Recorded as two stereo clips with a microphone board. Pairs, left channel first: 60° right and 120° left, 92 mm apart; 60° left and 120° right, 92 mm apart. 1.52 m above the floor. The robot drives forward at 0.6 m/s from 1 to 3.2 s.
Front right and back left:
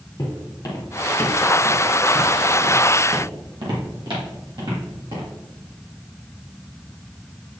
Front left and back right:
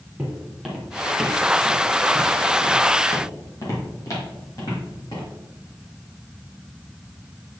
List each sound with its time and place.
0.2 s footsteps: 40° right, 2.5 m; by 5.3 s 110° left, 4 m